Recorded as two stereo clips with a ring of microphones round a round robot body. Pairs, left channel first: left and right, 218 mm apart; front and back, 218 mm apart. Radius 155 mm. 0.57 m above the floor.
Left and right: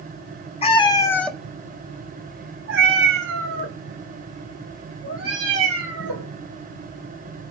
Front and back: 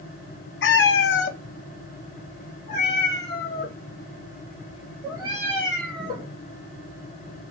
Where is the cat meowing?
25° left, 0.9 m; by 6.3 s 100° right, 2.5 m.